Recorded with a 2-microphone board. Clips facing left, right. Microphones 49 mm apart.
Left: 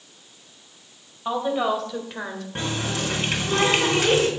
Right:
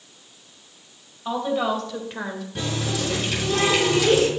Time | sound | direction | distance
1.2 | a woman speaking | 10° left (ahead or behind) | 2.5 m
2.5 | a running tap | 35° left (ahead or behind) | 3.5 m